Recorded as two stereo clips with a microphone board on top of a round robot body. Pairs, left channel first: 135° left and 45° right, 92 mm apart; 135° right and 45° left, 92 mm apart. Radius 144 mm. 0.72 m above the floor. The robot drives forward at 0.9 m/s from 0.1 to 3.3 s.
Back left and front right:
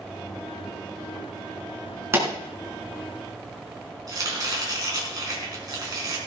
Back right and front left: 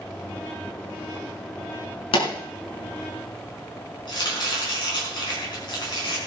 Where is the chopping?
95° right, 5 m.